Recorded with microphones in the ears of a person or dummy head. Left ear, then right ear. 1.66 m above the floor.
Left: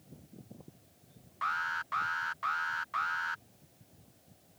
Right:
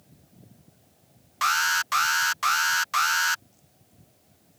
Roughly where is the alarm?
Right.